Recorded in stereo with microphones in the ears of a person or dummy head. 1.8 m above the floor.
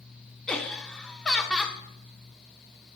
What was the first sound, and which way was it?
Laughter, centre (ahead or behind).